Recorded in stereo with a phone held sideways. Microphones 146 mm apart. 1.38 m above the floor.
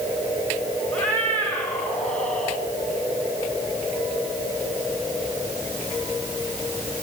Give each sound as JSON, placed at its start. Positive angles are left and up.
{"t": 0.9, "sound": "a cat meowing", "side_deg": 10, "distance_m": 6.0}